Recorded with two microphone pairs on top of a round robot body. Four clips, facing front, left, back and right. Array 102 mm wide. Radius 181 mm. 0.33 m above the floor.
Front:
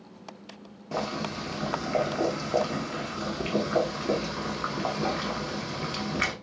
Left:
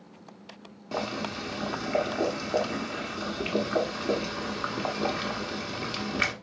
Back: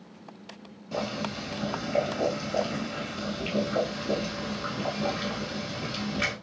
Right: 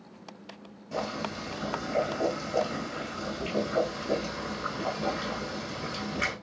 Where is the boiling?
55° left, 0.7 m.